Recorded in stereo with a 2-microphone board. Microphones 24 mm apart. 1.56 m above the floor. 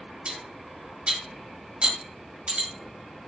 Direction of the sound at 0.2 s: 60° right (ahead or behind).